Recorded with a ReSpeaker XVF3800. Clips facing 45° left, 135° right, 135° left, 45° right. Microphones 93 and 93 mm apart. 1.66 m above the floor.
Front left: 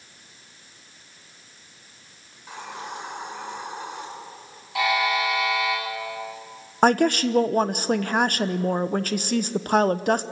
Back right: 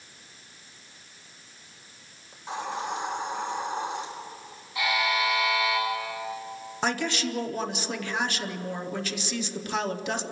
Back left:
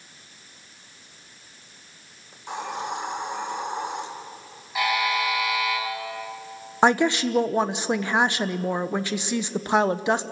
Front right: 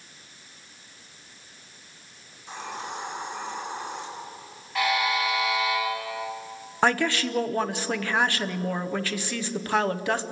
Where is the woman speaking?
70° left, 0.8 m.